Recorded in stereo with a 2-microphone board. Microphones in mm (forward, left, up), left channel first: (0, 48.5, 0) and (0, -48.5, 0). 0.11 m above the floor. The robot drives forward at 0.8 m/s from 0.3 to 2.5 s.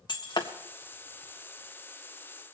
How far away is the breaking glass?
About 1.5 m.